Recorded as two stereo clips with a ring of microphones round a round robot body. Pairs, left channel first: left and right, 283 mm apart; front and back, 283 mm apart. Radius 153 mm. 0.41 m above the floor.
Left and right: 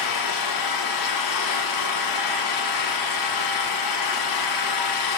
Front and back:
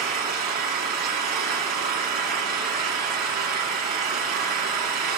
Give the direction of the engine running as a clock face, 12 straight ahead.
8 o'clock.